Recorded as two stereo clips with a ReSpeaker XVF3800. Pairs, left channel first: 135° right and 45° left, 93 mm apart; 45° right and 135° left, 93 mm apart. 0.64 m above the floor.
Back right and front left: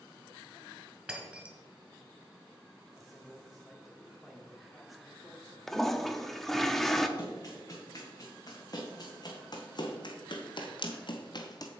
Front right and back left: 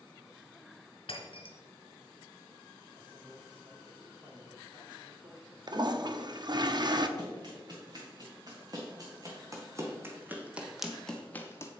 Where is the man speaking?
135° left, 1.8 m.